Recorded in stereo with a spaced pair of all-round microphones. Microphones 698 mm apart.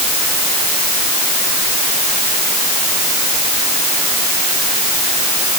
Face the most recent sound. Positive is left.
No sound to turn to.